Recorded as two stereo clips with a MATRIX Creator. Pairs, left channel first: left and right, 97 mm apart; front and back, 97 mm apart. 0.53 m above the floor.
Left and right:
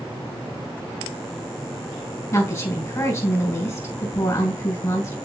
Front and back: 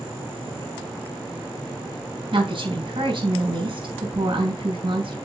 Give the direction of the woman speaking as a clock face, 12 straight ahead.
7 o'clock.